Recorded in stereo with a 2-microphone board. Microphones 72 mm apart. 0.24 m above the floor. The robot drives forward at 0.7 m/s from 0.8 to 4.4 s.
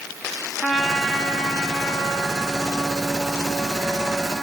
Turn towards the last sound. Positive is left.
turn(degrees=0)  # may be behind; listen again after turning